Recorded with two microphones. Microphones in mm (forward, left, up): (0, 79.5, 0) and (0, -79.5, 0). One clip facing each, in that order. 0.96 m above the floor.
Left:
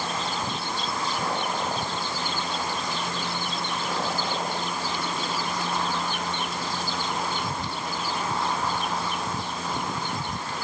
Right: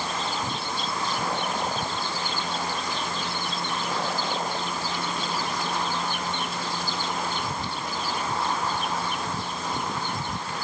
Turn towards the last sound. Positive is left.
No sound to turn to.